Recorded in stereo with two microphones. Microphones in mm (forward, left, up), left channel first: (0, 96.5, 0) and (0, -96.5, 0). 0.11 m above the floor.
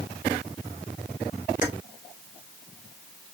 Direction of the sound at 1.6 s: 45° left (ahead or behind).